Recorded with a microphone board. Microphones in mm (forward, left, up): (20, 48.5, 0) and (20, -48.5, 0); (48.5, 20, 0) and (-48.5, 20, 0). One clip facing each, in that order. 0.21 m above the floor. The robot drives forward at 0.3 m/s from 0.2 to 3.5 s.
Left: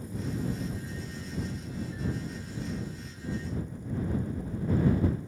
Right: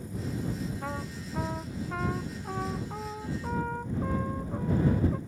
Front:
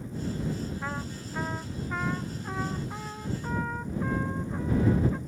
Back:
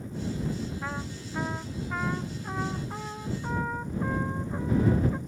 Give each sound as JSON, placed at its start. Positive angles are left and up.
{"t": 0.8, "sound": "a trumpet", "azimuth_deg": -90}